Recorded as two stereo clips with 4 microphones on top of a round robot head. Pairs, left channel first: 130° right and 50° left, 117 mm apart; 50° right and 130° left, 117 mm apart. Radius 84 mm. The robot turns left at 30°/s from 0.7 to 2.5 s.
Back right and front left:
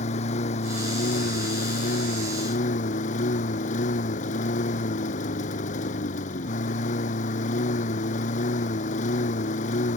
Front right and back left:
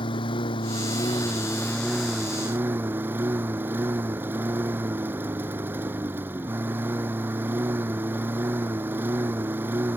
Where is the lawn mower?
100° right; by 10.0 s 155° right.